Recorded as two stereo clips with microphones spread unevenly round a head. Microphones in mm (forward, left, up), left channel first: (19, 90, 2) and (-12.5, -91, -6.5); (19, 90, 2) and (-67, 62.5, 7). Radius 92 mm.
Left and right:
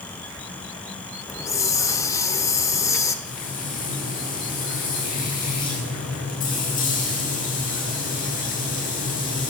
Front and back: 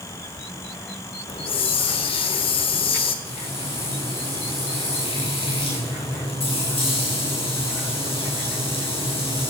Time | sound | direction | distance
1.3 | a hiss | 10° left | 1.7 m
3.2 | frying | 30° left | 9.5 m